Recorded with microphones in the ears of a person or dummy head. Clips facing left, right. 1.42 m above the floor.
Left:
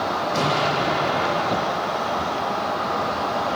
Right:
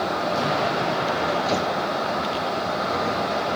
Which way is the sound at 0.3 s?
45° left (ahead or behind).